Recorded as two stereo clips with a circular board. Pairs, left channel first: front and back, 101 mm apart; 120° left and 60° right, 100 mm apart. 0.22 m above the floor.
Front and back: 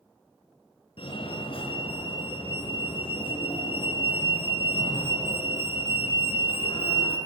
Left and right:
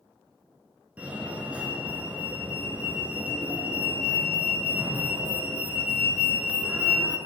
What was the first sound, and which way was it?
A fire alarm, 15° left.